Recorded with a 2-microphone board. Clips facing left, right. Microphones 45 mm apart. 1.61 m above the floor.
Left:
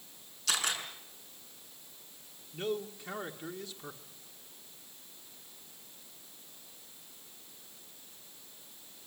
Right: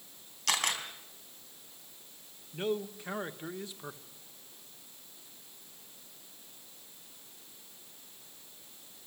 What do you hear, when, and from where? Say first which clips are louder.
0.5 s a camera shutter: right 2 dB; 60° right (ahead or behind), 4 m
2.5 s a man speaking: right 2 dB; 20° right (ahead or behind), 1.4 m